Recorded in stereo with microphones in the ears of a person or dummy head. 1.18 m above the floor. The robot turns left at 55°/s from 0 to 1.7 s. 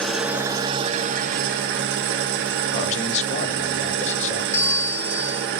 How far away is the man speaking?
About 0.9 m.